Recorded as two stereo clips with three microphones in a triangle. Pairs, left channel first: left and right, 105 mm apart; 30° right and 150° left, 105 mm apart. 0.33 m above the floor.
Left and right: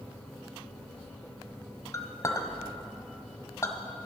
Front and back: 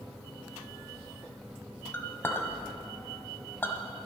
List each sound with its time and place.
1.9 s a clink: 35° left, 1.3 m